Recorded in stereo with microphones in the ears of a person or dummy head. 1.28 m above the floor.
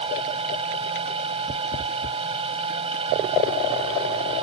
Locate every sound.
0.0 s a machine running: 30° right (ahead or behind)